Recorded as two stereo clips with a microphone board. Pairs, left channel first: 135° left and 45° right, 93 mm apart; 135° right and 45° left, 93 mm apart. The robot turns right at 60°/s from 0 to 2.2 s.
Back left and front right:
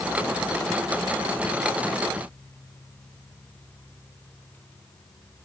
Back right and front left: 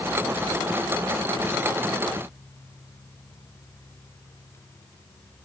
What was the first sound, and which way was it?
Only background noise.